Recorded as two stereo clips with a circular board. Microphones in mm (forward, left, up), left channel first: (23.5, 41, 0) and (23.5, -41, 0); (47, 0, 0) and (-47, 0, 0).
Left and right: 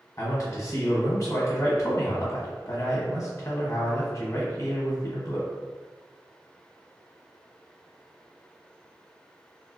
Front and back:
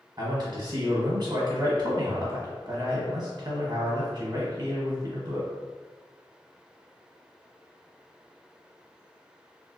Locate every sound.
0.2 s a man speaking: 135° left, 1.2 m